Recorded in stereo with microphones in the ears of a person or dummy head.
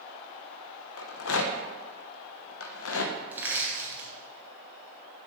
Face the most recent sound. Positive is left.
turn(degrees=-15)  # may be behind; listen again after turning